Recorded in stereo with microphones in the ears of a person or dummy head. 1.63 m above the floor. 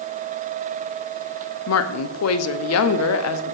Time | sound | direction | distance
1.7 | a woman speaking | 80° left | 0.7 m